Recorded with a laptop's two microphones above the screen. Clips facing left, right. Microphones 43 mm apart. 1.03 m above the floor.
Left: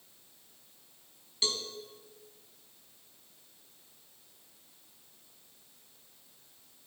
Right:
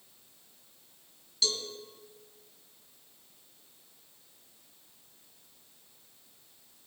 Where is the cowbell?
30° left (ahead or behind), 2.5 m.